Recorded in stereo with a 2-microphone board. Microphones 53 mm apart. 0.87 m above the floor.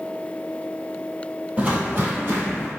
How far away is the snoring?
I don't hear snoring.